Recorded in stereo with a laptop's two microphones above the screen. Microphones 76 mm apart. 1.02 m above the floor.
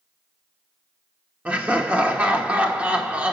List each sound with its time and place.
1.4 s laughter: 15° right (ahead or behind), 1.0 m